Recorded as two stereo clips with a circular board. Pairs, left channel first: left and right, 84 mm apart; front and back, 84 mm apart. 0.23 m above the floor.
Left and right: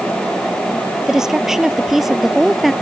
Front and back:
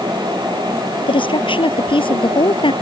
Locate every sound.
1.1 s a woman speaking: 5° right; by 2.7 s straight ahead